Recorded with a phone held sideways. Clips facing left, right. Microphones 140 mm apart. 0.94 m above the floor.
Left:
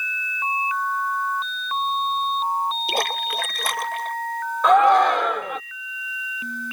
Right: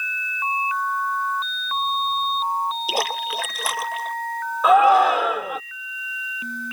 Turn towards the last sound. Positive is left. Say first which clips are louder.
# right 1 dB
turn(degrees=-5)  # may be behind; listen again after turning